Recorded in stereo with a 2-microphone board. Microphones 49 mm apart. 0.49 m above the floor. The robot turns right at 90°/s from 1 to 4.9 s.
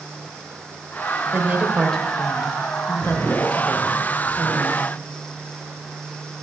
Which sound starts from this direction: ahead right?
A woman speaking, at 1.3 s.